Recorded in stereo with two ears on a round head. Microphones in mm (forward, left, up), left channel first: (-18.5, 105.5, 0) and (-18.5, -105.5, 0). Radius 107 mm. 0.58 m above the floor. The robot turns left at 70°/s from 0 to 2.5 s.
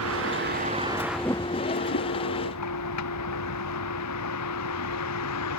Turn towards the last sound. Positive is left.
turn(degrees=85)